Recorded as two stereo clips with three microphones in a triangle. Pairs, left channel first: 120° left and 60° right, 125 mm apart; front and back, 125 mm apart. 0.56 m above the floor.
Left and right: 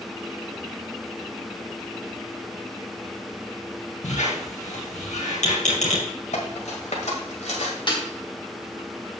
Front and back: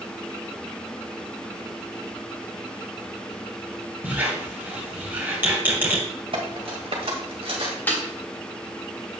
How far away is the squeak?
About 3 m.